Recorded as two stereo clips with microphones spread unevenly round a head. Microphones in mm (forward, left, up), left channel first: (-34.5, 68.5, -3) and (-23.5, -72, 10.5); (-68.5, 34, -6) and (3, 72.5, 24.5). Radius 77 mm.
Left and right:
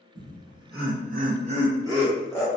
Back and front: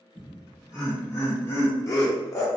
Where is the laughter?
60° right, 1.0 m; by 2.5 s 175° right, 0.8 m.